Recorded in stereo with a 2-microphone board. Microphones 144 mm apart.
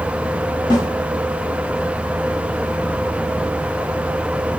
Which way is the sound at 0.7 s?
30° left (ahead or behind).